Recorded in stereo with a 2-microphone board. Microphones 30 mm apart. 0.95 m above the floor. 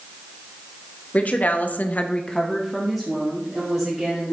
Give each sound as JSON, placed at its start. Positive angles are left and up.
{"t": 1.1, "sound": "a woman speaking", "side_deg": 50, "distance_m": 1.5}